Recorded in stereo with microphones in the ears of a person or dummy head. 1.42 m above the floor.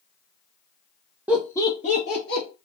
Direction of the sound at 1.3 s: 10° right (ahead or behind).